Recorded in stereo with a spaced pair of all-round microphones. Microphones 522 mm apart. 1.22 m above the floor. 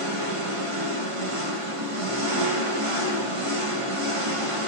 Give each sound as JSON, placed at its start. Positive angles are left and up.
{"t": 0.0, "sound": "an engine running", "side_deg": -75, "distance_m": 1.4}